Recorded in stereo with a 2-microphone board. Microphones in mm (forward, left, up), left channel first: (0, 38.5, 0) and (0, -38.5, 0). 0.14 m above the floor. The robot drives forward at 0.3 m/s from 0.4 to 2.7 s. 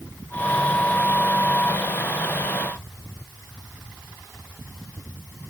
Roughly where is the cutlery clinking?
I don't hear cutlery clinking.